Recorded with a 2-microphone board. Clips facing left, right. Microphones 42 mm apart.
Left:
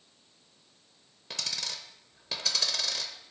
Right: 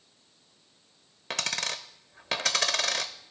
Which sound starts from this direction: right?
A dropped coin, at 1.3 s.